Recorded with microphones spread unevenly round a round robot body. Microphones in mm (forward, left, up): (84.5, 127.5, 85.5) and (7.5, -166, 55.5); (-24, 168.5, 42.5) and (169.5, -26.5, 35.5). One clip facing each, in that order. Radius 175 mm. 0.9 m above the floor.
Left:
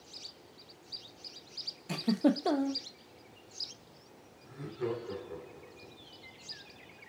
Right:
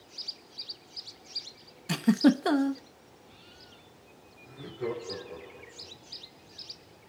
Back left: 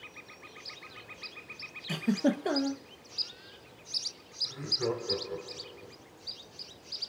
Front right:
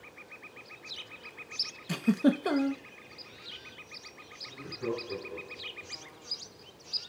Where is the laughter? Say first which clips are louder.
Right 1 dB, back left 2 dB; 140° left, 2.5 m.